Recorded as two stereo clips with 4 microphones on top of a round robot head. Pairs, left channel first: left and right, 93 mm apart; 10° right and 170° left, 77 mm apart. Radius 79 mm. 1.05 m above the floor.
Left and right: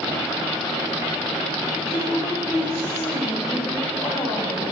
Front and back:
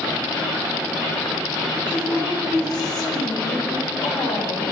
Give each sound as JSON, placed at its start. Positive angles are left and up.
{"t": 1.9, "sound": "a woman speaking", "azimuth_deg": 15, "distance_m": 6.0}